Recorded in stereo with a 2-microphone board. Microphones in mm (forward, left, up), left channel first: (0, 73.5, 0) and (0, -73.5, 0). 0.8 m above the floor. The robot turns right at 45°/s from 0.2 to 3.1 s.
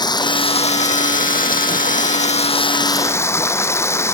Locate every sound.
0.0 s running water: 30° left; by 4.1 s 160° left